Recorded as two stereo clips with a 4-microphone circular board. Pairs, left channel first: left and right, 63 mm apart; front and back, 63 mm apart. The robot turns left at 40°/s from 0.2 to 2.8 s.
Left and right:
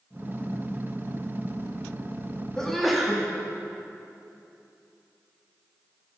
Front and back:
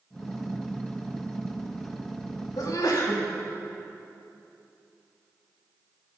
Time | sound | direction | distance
2.6 | a sneeze | 10° left | 2 m